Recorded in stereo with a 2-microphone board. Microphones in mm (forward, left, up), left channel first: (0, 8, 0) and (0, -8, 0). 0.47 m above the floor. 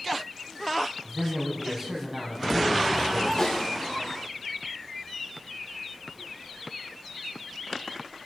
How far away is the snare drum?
About 6.5 m.